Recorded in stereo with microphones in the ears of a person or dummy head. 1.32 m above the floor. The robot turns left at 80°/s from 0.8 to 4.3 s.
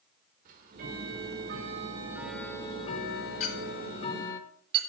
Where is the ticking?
60° right, 1.5 m; by 4.4 s 20° left, 1.5 m.